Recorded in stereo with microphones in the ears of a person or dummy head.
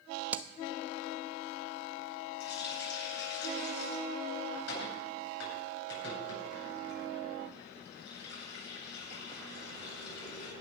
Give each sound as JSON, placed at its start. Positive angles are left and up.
{"t": 0.3, "sound": "hammering", "side_deg": -10, "distance_m": 0.7}
{"t": 2.4, "sound": "a running tap", "side_deg": 65, "distance_m": 9.0}